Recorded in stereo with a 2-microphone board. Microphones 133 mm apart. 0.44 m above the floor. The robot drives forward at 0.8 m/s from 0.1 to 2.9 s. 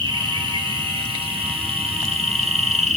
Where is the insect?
35° right (ahead or behind), 4.5 m; by 3.0 s 60° right (ahead or behind), 3 m.